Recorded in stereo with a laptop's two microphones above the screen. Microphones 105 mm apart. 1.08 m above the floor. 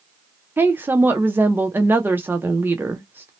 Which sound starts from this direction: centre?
A woman speaking, at 0.6 s.